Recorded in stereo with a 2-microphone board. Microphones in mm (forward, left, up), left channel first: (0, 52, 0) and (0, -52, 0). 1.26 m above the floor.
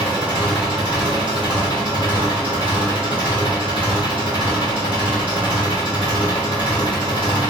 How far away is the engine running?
About 1.8 m.